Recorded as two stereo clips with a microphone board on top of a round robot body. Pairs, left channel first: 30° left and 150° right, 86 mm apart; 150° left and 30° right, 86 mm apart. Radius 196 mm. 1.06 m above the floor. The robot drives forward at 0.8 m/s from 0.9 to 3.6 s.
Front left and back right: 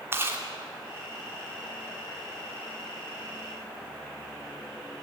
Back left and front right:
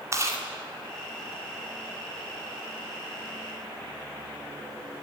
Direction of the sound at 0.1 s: 85° right.